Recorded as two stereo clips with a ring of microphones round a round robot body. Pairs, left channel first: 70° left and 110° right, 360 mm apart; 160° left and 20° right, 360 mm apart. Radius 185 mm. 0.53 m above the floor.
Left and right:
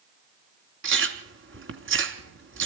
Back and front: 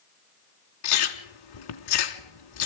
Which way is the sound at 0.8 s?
175° right.